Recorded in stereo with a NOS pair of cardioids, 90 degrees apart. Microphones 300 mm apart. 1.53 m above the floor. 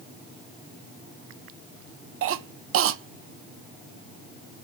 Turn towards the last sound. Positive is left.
turn(degrees=-50)